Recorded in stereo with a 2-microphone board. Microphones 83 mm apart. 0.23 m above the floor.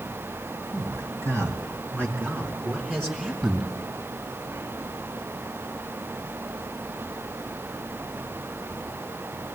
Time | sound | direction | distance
0.7 | a man speaking | 45° right (ahead or behind) | 2.5 m